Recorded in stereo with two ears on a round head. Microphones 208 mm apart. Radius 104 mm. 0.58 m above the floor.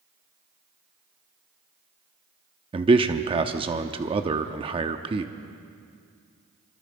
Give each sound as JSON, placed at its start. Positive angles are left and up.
{"t": 2.7, "sound": "a man speaking", "side_deg": -25, "distance_m": 0.9}